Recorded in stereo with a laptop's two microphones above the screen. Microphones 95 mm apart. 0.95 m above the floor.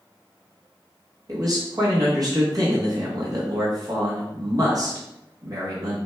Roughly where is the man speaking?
Right.